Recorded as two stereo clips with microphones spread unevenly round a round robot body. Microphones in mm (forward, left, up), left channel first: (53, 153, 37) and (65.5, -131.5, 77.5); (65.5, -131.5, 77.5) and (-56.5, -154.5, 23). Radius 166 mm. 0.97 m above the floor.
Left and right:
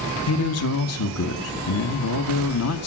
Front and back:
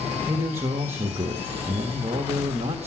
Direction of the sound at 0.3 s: 120° left.